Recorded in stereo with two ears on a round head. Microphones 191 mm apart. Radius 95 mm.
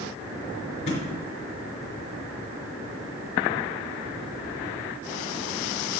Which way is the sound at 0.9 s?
40° left (ahead or behind).